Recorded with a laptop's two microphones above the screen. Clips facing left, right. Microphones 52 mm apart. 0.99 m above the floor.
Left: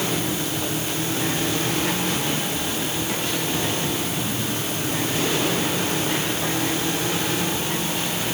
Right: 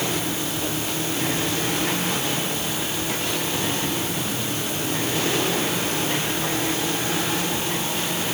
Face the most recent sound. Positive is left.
No sound to turn to.